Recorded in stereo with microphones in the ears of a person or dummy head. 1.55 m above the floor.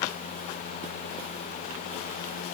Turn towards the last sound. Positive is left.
No sound to turn to.